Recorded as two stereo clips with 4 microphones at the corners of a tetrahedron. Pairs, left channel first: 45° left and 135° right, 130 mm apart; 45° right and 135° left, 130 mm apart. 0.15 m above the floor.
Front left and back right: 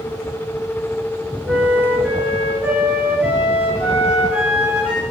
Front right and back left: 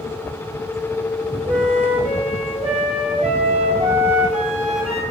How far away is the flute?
About 1.1 m.